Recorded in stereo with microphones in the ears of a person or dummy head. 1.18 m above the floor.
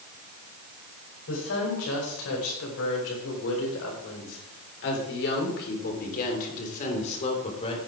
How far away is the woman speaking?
About 5.5 m.